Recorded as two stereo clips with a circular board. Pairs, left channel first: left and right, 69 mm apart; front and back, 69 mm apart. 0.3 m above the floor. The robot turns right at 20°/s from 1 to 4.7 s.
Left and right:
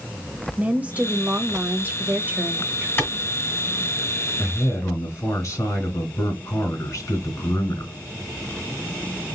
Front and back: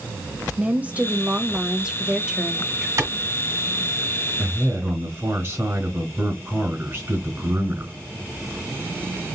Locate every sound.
0.6 s a woman speaking: 140° right, 1.0 m; by 2.9 s 100° right, 1.0 m
3.0 s a clap: 145° left, 1.8 m
4.4 s a man speaking: 115° left, 2.5 m; by 7.9 s 125° left, 2.5 m